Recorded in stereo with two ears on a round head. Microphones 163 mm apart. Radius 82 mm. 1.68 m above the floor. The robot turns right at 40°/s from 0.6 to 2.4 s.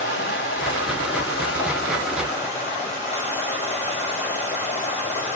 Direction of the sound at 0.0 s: 65° left.